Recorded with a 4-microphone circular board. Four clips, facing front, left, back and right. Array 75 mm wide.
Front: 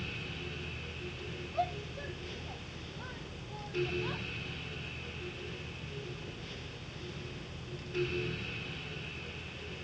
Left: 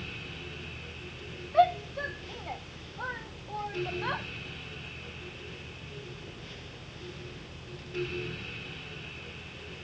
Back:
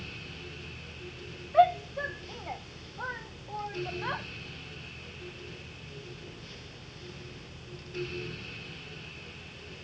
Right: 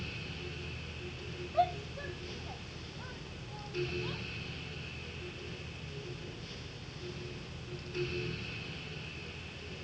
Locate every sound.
1.5 s a shout: 155° left; by 4.3 s 135° left